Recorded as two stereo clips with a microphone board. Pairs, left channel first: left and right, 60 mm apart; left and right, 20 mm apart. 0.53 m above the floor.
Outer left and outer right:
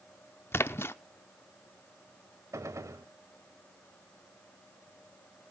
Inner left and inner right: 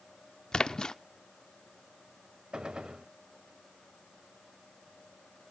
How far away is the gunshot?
About 0.9 m.